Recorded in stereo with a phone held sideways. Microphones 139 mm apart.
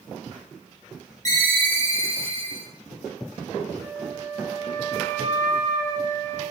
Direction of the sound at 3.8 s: 75° right (ahead or behind).